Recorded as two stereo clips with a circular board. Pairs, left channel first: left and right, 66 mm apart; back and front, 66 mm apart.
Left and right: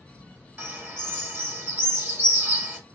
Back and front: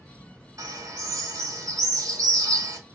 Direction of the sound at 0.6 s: 30° right.